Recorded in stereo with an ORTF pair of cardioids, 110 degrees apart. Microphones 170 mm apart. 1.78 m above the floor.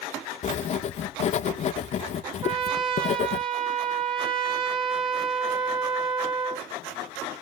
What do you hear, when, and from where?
0.4 s writing: 45° left, 0.6 m
2.4 s a trumpet: 30° right, 1.5 m